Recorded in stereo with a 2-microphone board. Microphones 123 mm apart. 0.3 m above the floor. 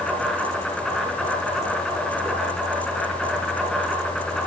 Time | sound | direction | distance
0.0 | an insect | 5° left (ahead or behind) | 5 m